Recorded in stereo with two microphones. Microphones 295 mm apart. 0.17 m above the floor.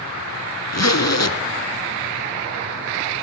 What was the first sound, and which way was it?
A zipper, 60° left (ahead or behind).